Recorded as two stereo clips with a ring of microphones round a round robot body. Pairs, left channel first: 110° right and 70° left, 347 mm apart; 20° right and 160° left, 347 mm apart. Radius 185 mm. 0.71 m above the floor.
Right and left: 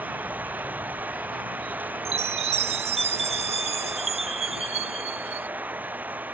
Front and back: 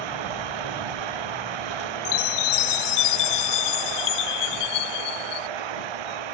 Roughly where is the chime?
Ahead.